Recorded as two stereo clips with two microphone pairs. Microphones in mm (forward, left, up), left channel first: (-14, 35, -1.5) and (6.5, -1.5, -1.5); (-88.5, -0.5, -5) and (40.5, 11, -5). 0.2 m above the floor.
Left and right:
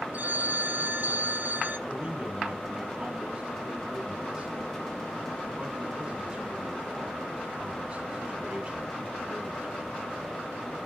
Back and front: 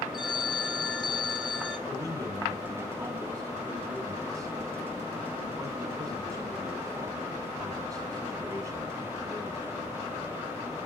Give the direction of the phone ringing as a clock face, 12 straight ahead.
3 o'clock.